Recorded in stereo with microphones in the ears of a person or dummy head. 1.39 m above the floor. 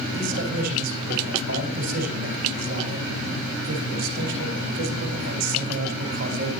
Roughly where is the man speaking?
Right.